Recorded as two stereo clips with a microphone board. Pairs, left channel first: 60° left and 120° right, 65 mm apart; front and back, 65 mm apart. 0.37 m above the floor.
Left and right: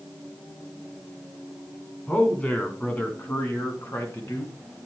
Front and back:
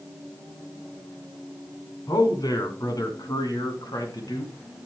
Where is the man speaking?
10° right, 3.5 m; by 4.5 s 20° left, 4 m.